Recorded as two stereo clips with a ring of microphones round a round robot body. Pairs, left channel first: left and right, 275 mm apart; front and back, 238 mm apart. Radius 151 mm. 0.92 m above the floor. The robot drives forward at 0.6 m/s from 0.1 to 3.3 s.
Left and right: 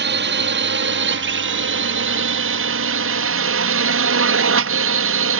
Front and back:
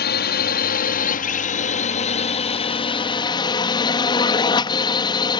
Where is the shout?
I don't hear a shout.